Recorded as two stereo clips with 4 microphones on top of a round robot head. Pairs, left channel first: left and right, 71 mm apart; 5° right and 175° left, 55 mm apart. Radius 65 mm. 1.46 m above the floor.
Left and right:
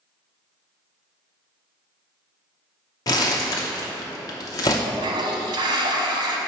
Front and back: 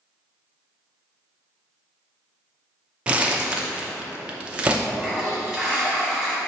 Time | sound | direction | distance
3.1 | crumpling | 110° left | 0.6 m
4.9 | a toilet flushing | 100° right | 0.9 m